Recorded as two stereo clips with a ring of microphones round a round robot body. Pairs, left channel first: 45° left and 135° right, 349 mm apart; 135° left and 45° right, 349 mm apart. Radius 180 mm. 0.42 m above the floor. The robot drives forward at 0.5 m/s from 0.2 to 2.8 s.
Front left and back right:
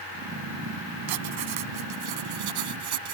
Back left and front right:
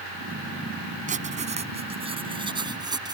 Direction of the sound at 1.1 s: 115° right.